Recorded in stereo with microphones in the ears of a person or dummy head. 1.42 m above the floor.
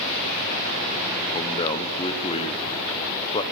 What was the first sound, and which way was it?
A man speaking, 30° left (ahead or behind).